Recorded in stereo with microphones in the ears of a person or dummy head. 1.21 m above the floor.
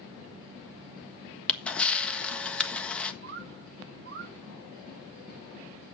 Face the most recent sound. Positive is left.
turn(degrees=-55)  # may be behind; listen again after turning